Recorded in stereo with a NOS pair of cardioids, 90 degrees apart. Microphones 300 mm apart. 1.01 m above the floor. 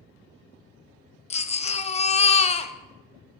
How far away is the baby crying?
About 0.6 m.